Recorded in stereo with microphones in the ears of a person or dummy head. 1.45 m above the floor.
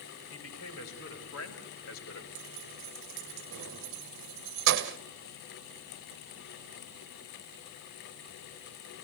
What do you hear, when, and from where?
0.3 s a man speaking: 90° left, 6.5 m; by 2.2 s 85° left, 4.5 m
2.4 s keys jangling: 70° right (ahead or behind), 1.1 m